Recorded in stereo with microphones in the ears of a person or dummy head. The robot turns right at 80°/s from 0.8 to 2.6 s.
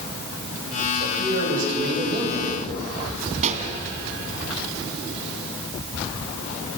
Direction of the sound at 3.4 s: 40° right (ahead or behind).